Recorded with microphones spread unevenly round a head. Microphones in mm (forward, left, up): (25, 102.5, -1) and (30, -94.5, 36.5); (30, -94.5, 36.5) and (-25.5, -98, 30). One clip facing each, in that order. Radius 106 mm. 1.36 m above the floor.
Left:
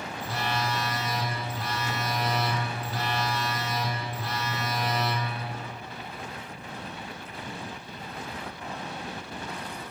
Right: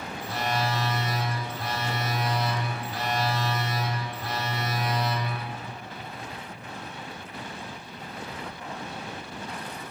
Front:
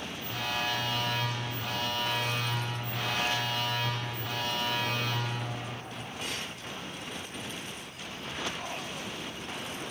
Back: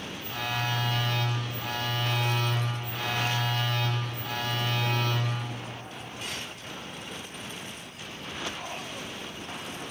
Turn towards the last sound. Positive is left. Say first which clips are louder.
# right 2 dB, back 1 dB
turn(degrees=100)